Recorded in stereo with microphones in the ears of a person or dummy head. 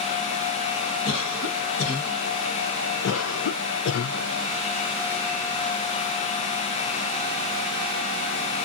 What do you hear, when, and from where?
1.1 s a cough: 75° left (ahead or behind), 1.8 m
3.0 s a cough: 75° left (ahead or behind), 0.5 m